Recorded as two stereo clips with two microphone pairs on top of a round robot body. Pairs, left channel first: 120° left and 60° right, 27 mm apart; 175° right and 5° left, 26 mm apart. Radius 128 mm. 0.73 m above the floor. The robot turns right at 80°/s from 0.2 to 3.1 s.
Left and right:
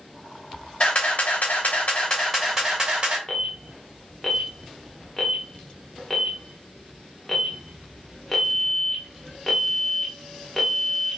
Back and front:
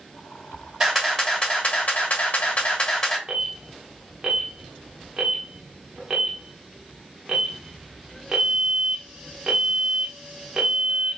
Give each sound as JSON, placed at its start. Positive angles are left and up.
{"t": 0.8, "sound": "a camera shutter", "azimuth_deg": 75, "distance_m": 2.5}
{"t": 3.3, "sound": "an alarm", "azimuth_deg": 30, "distance_m": 1.5}